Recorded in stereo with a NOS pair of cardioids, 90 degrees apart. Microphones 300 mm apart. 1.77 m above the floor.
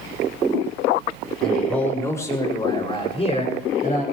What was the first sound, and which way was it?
A man speaking, straight ahead.